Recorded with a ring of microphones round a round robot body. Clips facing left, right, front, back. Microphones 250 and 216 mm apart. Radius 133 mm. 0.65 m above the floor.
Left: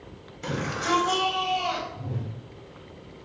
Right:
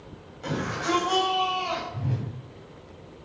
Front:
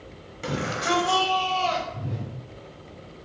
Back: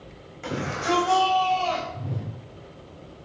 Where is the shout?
40° left, 4 m; by 1.8 s 55° left, 4 m.